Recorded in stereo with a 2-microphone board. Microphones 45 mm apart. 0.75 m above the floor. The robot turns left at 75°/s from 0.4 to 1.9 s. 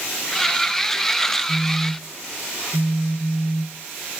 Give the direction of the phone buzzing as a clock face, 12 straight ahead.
5 o'clock.